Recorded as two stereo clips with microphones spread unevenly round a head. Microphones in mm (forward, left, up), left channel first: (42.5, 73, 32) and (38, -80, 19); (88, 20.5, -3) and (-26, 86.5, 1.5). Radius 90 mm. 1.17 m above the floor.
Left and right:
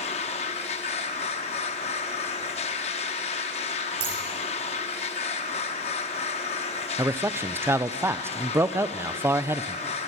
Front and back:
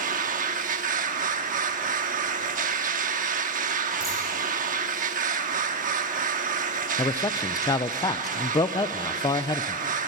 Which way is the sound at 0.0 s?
145° left.